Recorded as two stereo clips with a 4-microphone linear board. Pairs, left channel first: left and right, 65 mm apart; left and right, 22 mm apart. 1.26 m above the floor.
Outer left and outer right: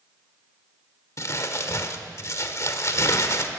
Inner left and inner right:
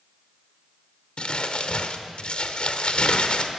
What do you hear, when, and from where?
1.2 s crumpling: 50° left (ahead or behind), 1.4 m